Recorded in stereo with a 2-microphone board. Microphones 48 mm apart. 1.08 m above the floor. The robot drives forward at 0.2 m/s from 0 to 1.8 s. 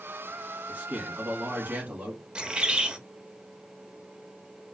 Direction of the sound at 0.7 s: 35° right (ahead or behind).